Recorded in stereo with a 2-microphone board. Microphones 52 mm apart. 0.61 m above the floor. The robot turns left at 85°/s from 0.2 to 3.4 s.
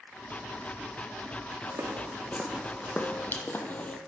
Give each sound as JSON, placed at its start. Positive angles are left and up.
{"t": 1.7, "sound": "footsteps", "side_deg": -70, "distance_m": 1.8}